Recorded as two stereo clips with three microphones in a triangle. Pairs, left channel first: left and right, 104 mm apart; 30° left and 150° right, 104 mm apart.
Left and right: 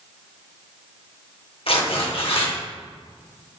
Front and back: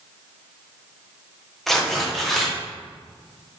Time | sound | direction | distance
1.7 | tearing paper | 115° left | 1.5 m